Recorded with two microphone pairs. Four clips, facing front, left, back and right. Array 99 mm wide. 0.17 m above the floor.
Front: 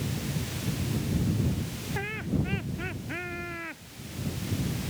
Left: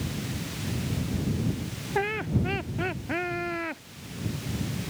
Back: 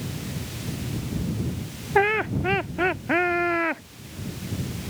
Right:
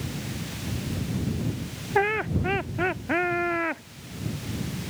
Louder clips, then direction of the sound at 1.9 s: Right 4 dB, back 11 dB; 160° right.